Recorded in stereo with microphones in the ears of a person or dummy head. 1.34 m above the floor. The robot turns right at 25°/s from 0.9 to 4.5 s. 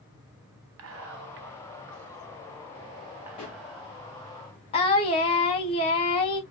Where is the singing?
30° left (ahead or behind), 0.8 m.